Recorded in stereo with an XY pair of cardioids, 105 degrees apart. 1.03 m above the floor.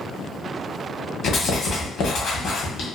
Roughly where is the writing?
Ahead left.